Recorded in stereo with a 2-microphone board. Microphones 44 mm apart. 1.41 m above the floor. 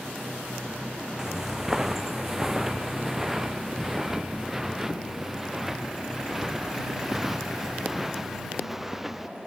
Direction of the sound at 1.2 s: 10° right (ahead or behind).